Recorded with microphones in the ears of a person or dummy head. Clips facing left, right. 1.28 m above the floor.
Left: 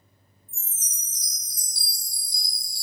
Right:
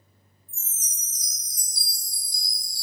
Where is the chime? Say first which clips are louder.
Even; 30° left (ahead or behind), 1.2 m.